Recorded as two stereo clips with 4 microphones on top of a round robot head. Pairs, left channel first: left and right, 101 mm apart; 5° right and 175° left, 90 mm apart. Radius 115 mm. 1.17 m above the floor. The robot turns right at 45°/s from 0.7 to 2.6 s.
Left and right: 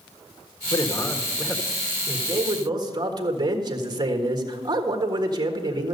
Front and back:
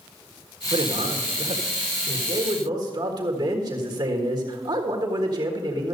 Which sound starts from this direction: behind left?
A man speaking, at 0.7 s.